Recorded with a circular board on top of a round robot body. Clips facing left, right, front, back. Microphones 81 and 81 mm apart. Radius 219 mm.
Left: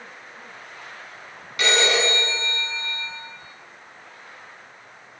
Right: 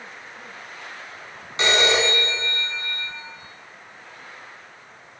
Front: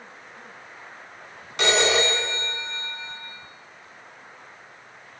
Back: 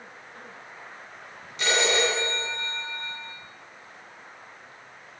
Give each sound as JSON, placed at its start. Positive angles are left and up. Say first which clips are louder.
{"t": 1.6, "sound": "a phone ringing", "louder": "right 1 dB, front 3 dB", "azimuth_deg": -25, "distance_m": 6.5}